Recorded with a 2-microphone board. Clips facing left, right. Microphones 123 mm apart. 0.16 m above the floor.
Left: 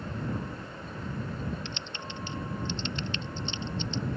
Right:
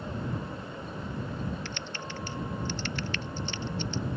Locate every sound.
1.6 s typing on a keyboard: 20° left (ahead or behind)